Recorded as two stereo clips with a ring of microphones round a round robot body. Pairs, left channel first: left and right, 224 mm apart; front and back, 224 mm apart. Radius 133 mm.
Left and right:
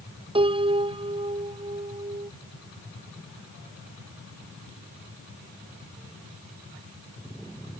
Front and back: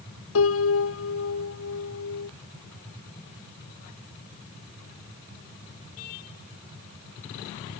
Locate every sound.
0.3 s a piano: 25° right